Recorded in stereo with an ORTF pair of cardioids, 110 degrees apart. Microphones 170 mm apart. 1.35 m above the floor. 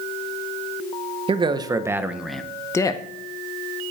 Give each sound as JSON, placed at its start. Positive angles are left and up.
{"t": 1.3, "sound": "a man speaking", "azimuth_deg": -30, "distance_m": 1.1}